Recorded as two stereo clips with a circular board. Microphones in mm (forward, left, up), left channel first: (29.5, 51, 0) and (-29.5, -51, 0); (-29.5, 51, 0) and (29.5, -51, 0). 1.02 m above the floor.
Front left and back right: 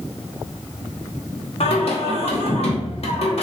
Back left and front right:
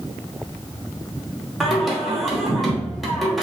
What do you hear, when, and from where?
1.6 s singing: 30° left, 0.7 m